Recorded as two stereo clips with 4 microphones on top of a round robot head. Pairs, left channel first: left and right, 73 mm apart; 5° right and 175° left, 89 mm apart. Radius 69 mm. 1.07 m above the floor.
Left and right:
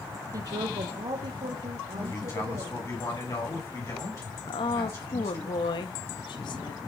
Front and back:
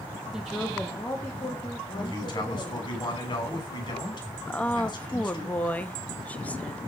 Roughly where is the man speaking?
Ahead left.